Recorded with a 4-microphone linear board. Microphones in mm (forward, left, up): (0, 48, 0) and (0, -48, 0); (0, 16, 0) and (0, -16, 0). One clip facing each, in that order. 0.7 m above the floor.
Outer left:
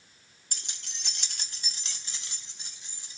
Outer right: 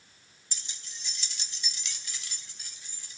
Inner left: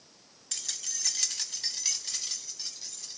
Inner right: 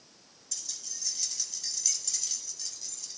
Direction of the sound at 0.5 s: 55° left (ahead or behind).